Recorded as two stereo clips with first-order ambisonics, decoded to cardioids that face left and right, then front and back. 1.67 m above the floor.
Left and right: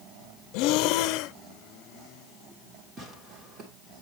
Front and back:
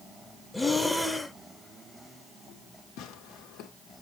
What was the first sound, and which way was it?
Breathing, 85° left.